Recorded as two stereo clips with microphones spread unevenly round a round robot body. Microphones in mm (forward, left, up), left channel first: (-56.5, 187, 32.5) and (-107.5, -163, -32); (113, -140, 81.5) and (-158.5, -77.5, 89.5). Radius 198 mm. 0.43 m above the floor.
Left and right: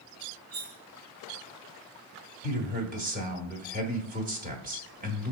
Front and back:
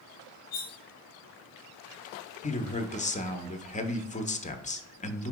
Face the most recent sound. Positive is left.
turn(degrees=-65)